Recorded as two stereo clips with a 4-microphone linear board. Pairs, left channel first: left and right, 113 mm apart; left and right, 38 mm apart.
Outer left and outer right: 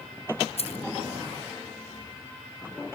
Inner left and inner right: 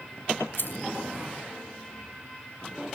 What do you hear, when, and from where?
0.6 s keys jangling: 65° left (ahead or behind)